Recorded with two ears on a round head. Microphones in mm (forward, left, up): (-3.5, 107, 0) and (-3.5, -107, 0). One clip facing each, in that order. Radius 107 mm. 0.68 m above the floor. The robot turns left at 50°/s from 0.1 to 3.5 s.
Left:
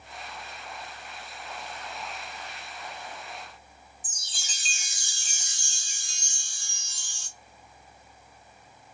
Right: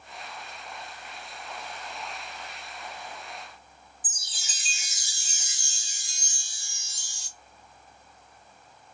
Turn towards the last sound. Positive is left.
turn(degrees=-5)  # may be behind; listen again after turning